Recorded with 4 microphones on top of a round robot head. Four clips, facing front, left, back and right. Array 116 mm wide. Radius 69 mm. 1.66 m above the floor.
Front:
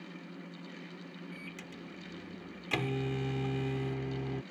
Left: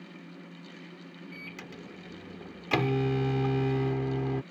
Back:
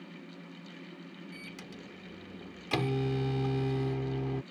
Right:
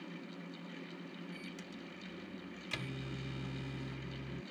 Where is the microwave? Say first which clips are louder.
Left 3 dB, even; 105° left.